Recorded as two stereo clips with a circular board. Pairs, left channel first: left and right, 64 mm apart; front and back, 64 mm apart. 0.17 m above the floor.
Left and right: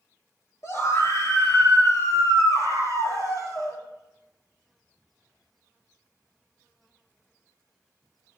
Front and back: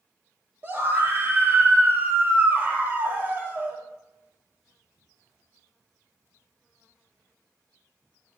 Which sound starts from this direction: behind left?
A scream, at 0.6 s.